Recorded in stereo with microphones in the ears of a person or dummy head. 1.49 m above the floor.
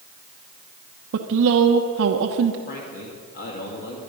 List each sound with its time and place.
1.1 s a woman speaking: 75° right (ahead or behind), 1.0 m
2.7 s a man speaking: 55° left (ahead or behind), 2.5 m